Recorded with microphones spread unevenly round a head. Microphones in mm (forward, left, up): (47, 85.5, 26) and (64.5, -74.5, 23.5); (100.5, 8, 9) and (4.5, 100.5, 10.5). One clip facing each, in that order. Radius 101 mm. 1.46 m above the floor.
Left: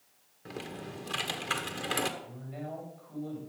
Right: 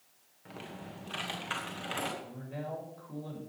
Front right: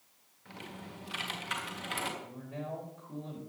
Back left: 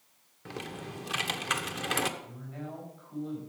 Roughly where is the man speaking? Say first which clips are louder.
Right 1 dB, front right 1 dB; right.